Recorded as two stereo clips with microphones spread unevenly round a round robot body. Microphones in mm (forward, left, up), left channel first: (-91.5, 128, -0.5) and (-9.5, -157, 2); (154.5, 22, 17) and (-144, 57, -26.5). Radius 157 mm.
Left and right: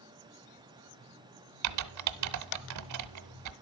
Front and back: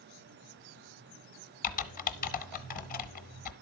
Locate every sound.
1.6 s typing on a keyboard: 60° right, 0.7 m